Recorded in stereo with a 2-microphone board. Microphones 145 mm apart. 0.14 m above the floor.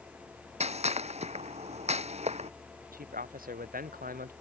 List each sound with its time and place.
0.6 s a gunshot: 50° right (ahead or behind)
2.9 s a man speaking: 85° right